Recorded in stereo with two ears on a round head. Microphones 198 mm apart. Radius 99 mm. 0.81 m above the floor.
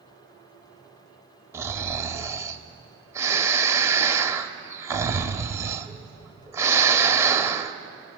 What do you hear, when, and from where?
1.5 s snoring: 15° right (ahead or behind), 1.0 m